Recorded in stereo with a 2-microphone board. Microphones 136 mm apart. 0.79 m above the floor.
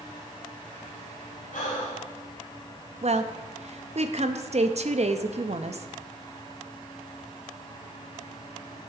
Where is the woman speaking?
55° right (ahead or behind), 0.6 m.